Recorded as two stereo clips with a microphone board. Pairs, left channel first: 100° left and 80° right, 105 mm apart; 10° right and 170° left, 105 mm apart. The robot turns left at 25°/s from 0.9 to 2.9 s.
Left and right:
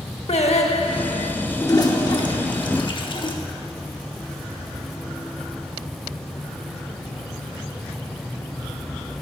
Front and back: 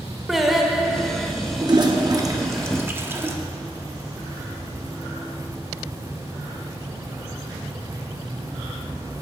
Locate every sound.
0.3 s singing: 80° left, 0.8 m; by 1.3 s 70° left, 0.8 m
1.6 s a toilet flushing: 140° left, 0.8 m; by 3.3 s 105° left, 0.8 m